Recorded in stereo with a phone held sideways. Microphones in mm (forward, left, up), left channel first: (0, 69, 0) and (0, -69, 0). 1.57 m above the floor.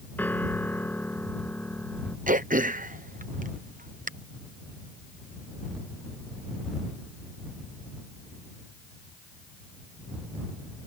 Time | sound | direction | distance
0.2 | a piano | 15° left (ahead or behind) | ?
2.3 | throat clearing | 80° right | ?